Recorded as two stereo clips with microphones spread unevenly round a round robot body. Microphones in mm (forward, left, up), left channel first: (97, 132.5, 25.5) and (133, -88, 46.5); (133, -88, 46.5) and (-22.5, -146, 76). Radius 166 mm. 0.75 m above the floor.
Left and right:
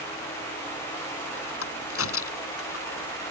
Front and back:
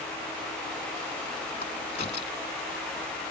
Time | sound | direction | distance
1.6 | a crack | 85° left | ?